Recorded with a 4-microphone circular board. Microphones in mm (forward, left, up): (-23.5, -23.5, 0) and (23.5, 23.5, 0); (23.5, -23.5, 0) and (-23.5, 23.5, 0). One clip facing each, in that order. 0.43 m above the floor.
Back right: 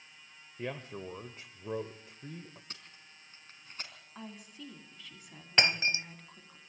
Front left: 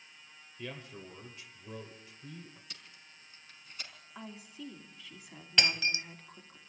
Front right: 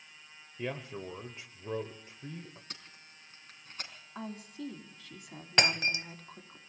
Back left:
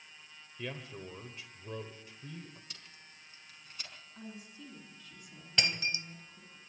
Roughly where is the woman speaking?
Ahead right.